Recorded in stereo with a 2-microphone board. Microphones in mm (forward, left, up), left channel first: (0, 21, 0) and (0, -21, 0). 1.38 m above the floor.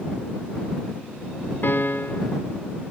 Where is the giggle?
No giggle in this recording.